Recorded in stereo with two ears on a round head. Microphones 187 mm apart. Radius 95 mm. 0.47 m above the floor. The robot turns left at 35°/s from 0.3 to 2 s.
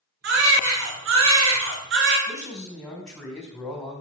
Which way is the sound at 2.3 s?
5° left (ahead or behind).